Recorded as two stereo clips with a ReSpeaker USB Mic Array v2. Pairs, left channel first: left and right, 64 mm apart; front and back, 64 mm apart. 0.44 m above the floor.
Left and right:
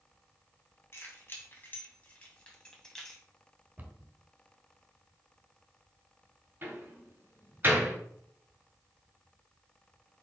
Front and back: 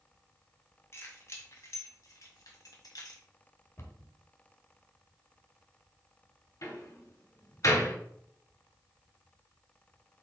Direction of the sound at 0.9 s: 40° left.